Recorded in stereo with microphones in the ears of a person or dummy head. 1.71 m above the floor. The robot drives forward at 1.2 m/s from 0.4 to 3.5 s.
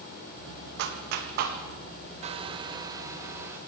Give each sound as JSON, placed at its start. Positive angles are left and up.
{"t": 0.8, "sound": "a clap", "side_deg": -75, "distance_m": 2.0}
{"t": 2.2, "sound": "a hair dryer", "side_deg": -40, "distance_m": 0.9}